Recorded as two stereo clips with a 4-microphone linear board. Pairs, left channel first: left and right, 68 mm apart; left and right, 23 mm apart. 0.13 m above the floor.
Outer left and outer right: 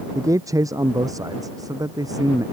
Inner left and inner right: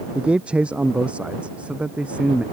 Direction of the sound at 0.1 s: 50° right (ahead or behind).